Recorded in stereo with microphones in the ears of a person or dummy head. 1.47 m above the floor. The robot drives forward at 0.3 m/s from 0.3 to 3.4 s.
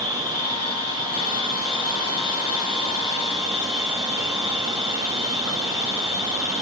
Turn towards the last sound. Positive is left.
turn(degrees=5)  # may be behind; listen again after turning